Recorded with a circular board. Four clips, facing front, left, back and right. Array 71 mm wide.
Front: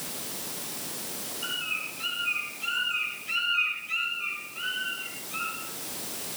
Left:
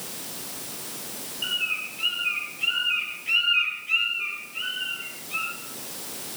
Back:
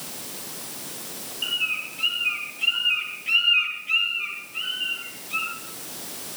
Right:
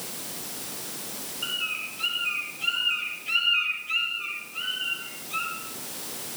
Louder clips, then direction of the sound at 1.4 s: Left 3 dB, back 5 dB; 145° left.